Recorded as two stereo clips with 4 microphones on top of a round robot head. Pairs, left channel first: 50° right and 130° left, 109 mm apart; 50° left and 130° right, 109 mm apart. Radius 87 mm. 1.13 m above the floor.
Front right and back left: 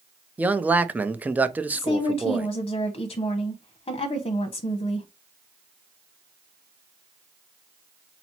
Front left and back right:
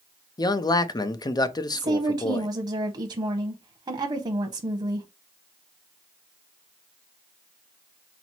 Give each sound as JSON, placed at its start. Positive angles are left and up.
{"t": 0.4, "sound": "a man speaking", "azimuth_deg": 65, "distance_m": 0.6}
{"t": 1.7, "sound": "a woman speaking", "azimuth_deg": -85, "distance_m": 0.7}